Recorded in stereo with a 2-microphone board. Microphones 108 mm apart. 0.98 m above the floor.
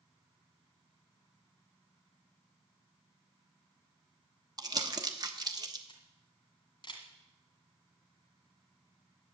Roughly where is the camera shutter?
Left.